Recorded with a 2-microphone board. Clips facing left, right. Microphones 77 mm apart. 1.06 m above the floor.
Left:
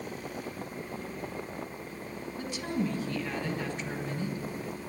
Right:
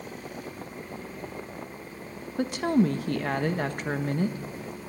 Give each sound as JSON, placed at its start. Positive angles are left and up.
{"t": 2.4, "sound": "a woman speaking", "side_deg": -60, "distance_m": 1.5}